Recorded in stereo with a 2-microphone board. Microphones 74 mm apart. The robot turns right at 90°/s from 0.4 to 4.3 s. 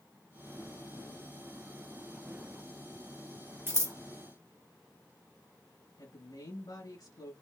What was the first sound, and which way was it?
Scissors, 30° right (ahead or behind).